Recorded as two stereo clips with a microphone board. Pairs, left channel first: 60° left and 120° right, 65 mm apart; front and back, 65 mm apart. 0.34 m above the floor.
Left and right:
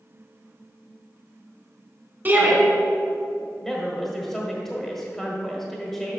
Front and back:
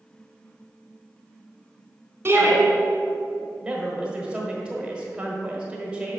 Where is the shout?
160° right, 1.9 m.